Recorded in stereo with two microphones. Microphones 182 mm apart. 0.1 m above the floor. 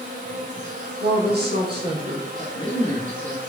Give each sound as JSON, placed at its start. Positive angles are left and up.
{"t": 0.0, "sound": "an insect", "side_deg": -45, "distance_m": 1.7}
{"t": 1.0, "sound": "a woman speaking", "side_deg": -60, "distance_m": 3.5}
{"t": 2.4, "sound": "a man speaking", "side_deg": 30, "distance_m": 2.0}